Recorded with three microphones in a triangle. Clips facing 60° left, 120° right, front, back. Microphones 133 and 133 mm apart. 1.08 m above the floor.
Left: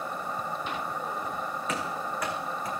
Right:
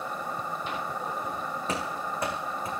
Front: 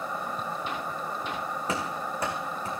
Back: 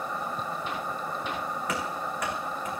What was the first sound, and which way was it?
Running footsteps, 60° right.